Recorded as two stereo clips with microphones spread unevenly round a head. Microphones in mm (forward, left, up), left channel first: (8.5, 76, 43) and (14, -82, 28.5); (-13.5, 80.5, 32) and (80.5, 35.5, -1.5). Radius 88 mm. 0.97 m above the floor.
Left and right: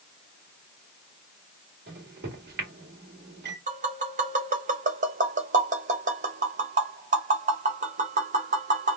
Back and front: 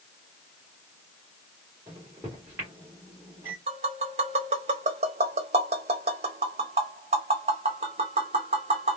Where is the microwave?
95° right, 1.8 m.